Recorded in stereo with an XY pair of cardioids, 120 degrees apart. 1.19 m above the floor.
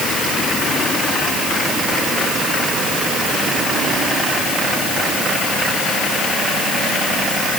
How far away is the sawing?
I don't hear sawing.